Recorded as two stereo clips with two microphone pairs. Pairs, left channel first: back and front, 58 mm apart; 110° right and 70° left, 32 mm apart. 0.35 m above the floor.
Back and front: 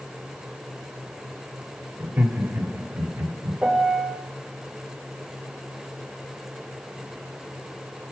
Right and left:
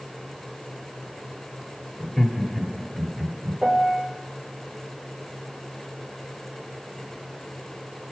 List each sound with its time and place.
2.0 s laughter: 35° right, 1.5 m; by 3.6 s 15° left, 2 m
3.6 s a piano: 40° left, 1.3 m